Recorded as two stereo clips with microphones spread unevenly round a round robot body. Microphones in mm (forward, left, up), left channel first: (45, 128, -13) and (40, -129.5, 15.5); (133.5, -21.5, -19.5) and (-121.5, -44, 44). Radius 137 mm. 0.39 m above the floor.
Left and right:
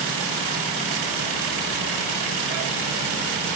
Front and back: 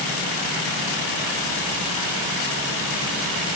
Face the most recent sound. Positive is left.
No sound to turn to.